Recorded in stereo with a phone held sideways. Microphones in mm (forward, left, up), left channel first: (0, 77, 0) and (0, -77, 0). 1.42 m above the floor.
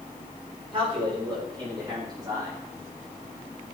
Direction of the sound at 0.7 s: 35° right (ahead or behind).